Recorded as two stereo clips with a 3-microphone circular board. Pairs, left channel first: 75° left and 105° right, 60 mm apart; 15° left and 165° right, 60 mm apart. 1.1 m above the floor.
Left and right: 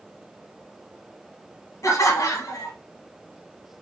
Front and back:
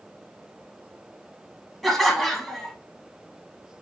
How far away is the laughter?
About 1.5 m.